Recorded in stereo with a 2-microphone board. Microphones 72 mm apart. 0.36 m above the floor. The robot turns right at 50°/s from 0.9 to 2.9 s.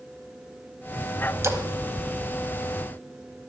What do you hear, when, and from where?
1.4 s a splash: 40° right (ahead or behind), 1.1 m; by 1.6 s 45° right (ahead or behind), 1.1 m